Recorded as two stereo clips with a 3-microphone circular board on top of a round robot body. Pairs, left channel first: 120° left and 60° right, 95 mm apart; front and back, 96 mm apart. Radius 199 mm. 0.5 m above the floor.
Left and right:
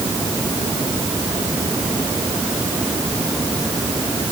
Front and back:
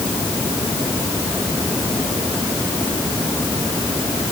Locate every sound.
Only background noise.